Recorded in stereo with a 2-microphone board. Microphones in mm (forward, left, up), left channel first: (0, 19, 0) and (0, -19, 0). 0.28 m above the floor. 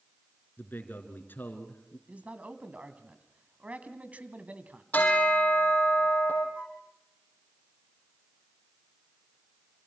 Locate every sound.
0.6 s a man speaking: 60° left (ahead or behind), 3.5 m
2.1 s a man speaking: 40° right (ahead or behind), 2 m
4.9 s a bell: 50° left (ahead or behind), 4.5 m
6.5 s a flute: 20° left (ahead or behind), 6 m